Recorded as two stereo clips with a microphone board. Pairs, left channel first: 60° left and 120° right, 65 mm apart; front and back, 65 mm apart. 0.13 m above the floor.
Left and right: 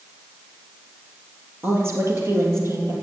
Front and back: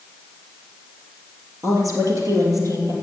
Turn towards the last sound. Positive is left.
turn(degrees=-160)